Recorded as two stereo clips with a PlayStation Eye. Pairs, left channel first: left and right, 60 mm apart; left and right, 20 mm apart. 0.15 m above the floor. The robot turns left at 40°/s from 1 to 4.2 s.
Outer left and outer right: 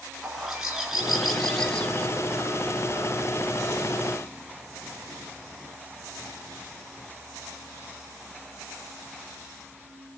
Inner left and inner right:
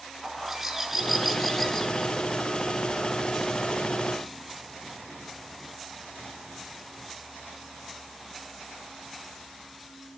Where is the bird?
160° right, 1.6 m; by 2.1 s 155° left, 1.6 m.